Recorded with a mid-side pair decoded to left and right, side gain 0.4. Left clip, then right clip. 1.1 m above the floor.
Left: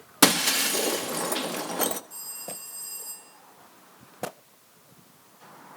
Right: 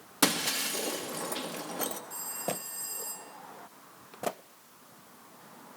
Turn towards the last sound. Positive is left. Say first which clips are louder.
# right 4 dB
turn(degrees=-10)